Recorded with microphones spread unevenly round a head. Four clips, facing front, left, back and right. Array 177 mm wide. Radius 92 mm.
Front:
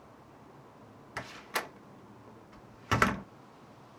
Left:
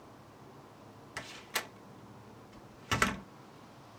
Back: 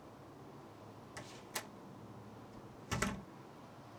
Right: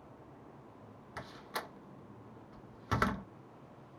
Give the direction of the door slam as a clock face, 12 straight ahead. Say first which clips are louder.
Left 1 dB, front 12 dB; 12 o'clock.